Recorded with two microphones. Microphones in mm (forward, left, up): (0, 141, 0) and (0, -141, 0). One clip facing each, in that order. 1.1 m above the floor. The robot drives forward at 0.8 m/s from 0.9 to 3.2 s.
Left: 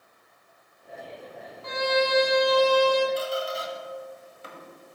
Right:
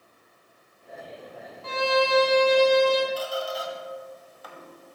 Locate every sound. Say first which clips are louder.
1.6 s a violin: right 1 dB; 35° right (ahead or behind), 0.7 m; by 3.1 s 20° right (ahead or behind), 1.1 m
3.2 s a squeak: left 1 dB; 25° left (ahead or behind), 1.3 m